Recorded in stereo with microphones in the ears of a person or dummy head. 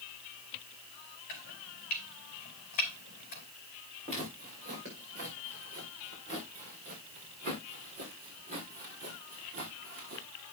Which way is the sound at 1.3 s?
45° left (ahead or behind).